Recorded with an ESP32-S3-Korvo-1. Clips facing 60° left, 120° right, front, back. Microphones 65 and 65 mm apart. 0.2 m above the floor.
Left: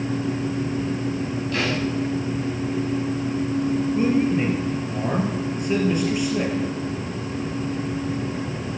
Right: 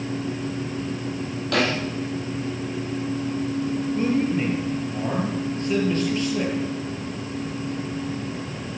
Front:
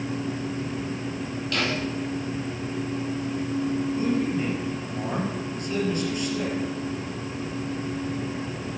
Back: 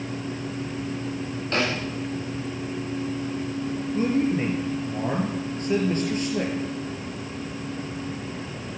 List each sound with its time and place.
1.5 s a snare drum: 125° right, 4 m
3.9 s a man speaking: 135° left, 4.5 m